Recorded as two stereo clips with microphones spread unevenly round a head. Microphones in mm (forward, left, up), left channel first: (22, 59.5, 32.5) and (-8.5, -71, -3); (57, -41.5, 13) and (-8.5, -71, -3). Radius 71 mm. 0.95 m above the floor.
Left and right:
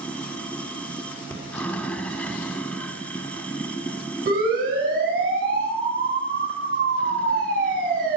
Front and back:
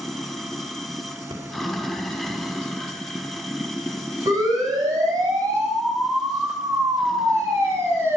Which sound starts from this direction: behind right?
A siren, at 4.3 s.